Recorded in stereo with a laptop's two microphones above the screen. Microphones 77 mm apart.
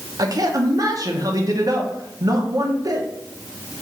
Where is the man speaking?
50° right (ahead or behind), 0.6 m.